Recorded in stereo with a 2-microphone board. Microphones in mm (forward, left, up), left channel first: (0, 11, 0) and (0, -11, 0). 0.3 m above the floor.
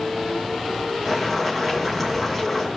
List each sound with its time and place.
1.1 s boiling: 10° right (ahead or behind), 2 m